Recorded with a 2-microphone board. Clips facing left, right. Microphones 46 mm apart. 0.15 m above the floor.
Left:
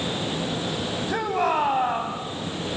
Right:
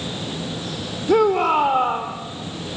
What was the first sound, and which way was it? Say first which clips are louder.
A shout: right 8 dB; 70° right (ahead or behind).